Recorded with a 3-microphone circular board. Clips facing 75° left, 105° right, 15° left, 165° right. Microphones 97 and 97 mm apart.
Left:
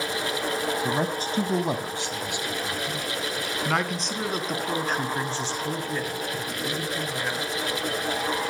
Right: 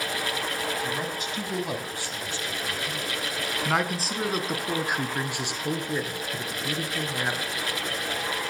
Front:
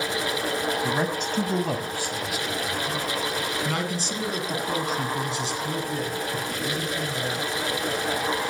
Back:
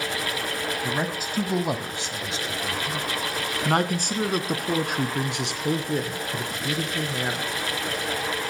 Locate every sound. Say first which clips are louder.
0.8 s a man speaking: left 5 dB, front 2 dB; 100° left, 1.6 m; by 7.5 s 170° right, 4 m